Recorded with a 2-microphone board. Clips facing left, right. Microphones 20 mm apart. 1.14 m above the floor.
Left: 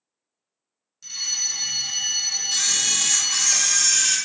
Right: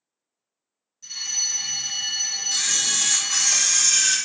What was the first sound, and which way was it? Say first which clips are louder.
A fire alarm: left 1 dB; 30° left (ahead or behind).